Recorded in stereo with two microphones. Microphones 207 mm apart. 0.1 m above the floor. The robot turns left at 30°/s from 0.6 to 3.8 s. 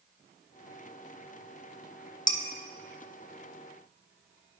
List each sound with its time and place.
2.3 s dishes clattering: 20° left (ahead or behind), 0.8 m